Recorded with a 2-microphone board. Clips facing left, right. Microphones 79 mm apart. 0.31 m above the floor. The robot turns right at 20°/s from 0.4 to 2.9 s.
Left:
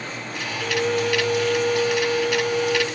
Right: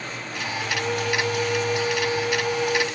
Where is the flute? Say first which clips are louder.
Left 5 dB; 90° left, 1.3 m; by 2.9 s 135° left, 1.3 m.